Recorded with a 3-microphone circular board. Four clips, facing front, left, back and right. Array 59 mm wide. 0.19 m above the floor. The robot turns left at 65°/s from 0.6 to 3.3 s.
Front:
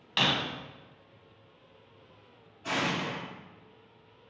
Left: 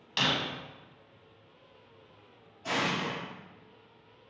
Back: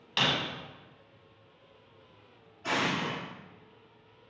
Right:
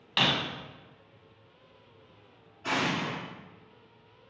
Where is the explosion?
115° right, 1.2 m; by 3.2 s 150° right, 1.2 m.